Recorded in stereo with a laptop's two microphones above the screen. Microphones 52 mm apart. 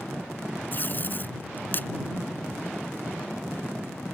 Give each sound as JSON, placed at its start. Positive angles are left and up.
{"t": 0.7, "sound": "tape being pulled", "side_deg": 40}